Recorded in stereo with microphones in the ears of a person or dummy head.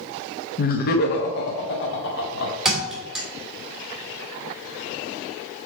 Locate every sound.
0.6 s laughter: 45° left (ahead or behind), 0.9 m; by 2.5 s 70° left (ahead or behind), 2 m
2.6 s a thud: 5° right (ahead or behind), 2.5 m